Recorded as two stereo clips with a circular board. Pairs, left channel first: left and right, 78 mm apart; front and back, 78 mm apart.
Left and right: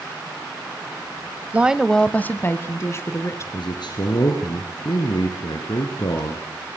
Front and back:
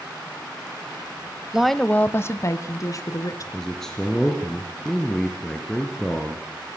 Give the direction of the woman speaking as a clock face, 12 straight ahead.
4 o'clock.